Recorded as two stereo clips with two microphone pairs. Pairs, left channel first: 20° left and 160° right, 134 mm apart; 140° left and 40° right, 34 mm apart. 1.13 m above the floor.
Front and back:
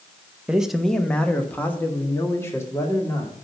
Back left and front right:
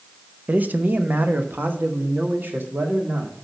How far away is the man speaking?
About 0.7 m.